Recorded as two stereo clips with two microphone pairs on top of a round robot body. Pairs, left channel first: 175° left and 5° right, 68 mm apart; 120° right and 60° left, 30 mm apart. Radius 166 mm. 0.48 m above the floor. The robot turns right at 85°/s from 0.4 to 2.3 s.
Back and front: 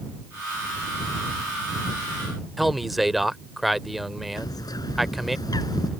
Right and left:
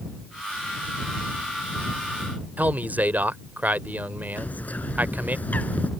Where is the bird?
155° right.